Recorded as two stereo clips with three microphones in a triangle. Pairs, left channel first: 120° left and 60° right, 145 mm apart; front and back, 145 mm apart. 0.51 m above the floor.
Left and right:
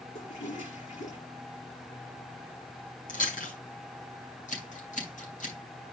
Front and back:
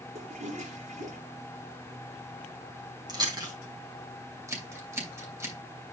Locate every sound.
0.1 s a toilet flushing: 150° left, 5.5 m
3.1 s chewing: 120° left, 4 m
4.5 s scissors: 110° left, 4.5 m